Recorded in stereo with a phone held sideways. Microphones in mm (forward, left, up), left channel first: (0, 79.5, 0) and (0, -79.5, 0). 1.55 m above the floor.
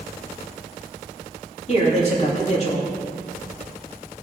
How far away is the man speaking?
About 3 m.